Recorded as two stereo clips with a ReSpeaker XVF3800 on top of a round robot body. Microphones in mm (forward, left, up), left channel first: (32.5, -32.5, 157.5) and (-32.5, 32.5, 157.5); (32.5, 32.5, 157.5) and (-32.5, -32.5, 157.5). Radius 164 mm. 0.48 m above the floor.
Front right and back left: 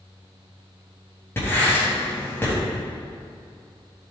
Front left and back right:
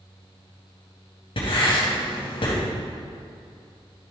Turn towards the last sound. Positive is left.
turn(degrees=20)